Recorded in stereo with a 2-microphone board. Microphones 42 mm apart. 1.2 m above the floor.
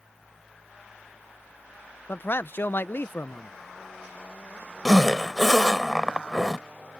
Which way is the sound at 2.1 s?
55° left (ahead or behind).